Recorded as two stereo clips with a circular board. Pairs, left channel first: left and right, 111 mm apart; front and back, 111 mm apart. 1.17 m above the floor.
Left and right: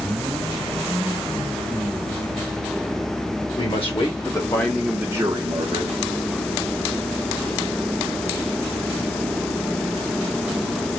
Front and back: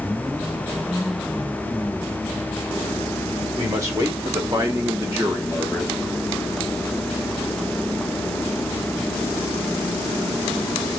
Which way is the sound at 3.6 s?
120° left.